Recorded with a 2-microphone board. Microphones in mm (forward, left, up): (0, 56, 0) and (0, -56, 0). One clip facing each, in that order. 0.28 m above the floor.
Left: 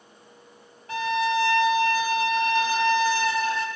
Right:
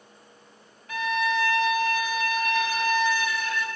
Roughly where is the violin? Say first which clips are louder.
Left 2 dB; left.